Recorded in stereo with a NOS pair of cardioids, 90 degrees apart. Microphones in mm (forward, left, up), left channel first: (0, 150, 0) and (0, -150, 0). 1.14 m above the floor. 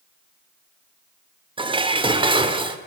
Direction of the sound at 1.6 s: 15° right.